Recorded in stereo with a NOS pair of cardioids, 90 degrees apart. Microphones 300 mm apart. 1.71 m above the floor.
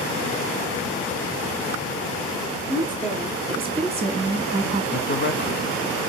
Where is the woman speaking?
15° right, 2.5 m; by 4.8 s 25° right, 1.3 m.